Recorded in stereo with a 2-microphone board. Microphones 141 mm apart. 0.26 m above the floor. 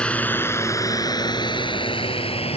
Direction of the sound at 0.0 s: 10° left (ahead or behind).